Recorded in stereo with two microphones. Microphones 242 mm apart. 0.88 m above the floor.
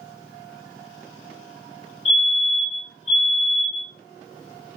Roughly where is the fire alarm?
Left.